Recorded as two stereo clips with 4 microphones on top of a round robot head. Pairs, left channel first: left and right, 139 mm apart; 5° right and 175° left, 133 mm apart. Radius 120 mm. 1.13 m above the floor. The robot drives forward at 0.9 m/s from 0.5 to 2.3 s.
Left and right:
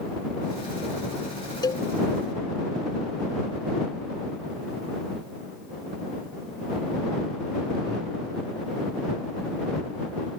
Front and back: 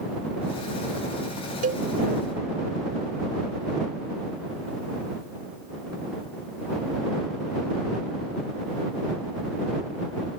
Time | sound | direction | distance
1.6 | a cowbell | 150° left | ?